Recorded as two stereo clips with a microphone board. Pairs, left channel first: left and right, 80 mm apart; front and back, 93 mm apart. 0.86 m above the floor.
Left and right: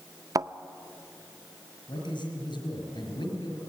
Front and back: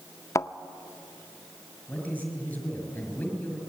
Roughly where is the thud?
Ahead right.